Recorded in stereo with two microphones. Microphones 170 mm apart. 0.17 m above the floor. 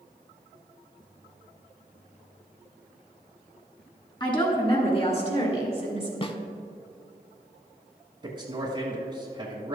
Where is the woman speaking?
30° left (ahead or behind), 1.9 m; by 6.1 s 45° left (ahead or behind), 3 m.